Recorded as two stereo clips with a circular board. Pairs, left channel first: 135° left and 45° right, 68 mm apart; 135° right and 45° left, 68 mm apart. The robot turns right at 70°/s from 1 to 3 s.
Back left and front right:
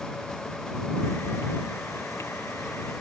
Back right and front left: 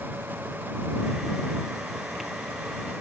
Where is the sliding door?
No sliding door in this recording.